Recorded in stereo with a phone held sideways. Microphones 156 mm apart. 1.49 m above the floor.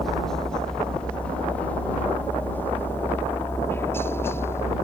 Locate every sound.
0.0 s a helicopter: centre (ahead or behind); by 4.9 s 15° left (ahead or behind)